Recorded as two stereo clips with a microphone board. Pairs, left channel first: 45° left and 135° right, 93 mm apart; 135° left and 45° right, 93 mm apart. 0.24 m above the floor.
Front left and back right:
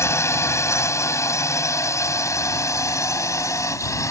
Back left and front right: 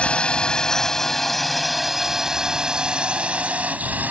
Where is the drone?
70° left; by 4.1 s 15° left.